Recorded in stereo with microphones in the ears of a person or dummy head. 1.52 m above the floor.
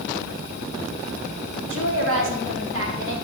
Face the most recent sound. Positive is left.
turn(degrees=-85)